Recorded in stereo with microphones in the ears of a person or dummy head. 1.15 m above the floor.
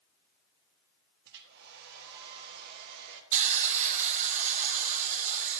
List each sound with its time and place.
1.2 s a hair dryer: 60° right (ahead or behind), 1.4 m
3.3 s a hiss: 40° right (ahead or behind), 1.3 m